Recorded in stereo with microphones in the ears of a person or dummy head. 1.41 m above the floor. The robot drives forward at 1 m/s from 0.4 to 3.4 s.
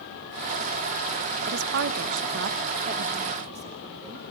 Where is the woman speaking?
60° right (ahead or behind), 1.1 m; by 4.2 s 35° right (ahead or behind), 1.8 m.